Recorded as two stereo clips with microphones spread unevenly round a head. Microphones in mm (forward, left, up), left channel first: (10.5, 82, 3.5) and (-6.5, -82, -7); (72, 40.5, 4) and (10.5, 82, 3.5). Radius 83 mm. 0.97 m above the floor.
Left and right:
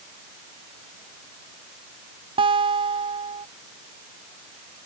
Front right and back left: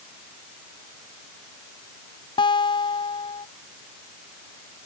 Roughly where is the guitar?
Ahead right.